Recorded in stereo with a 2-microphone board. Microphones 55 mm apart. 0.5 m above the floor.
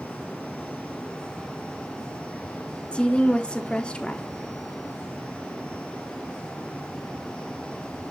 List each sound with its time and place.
2.9 s a woman speaking: 20° left (ahead or behind), 0.9 m